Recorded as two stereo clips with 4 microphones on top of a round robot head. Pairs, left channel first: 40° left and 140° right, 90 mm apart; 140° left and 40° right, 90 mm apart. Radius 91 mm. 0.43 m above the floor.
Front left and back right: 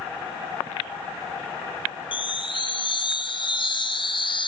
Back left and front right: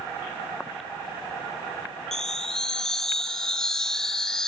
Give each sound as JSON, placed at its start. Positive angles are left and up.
{"t": 2.1, "sound": "a chime", "azimuth_deg": 60, "distance_m": 2.0}